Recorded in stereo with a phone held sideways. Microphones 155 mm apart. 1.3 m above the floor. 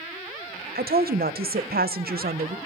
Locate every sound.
0.8 s a woman speaking: 80° right, 0.6 m